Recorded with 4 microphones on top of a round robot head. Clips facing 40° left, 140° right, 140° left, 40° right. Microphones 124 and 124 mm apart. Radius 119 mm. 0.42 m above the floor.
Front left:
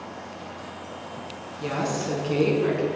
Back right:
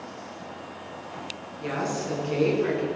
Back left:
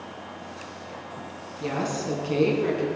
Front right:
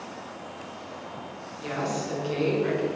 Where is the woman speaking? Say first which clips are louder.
Front left 2 dB, back left 2 dB; 105° left, 5.5 m; by 2.9 s 100° left, 5 m.